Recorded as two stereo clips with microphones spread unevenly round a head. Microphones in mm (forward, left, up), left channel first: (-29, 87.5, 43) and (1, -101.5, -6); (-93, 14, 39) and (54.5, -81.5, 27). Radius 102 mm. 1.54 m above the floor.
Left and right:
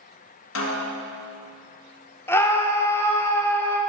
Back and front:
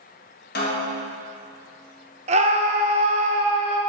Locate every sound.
0.6 s a snare drum: 100° left, 1.3 m
2.3 s a scream: 30° left, 0.8 m